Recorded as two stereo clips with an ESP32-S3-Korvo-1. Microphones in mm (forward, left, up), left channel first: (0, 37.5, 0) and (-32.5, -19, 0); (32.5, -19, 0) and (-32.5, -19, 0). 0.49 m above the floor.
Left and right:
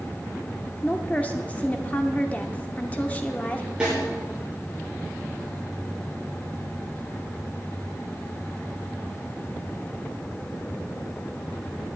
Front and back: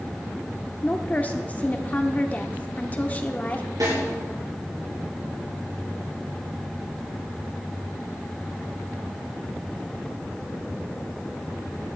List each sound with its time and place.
0.8 s a woman speaking: 25° left, 0.8 m
3.8 s a snare drum: 165° left, 6.5 m